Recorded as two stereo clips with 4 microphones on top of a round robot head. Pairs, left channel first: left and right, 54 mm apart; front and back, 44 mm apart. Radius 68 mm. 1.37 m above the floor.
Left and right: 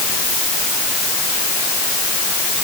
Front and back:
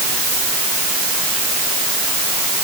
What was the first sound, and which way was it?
Only background noise.